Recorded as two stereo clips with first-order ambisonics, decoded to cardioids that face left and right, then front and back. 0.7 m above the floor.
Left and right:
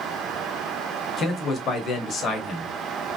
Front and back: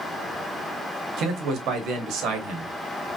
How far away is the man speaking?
About 1.0 m.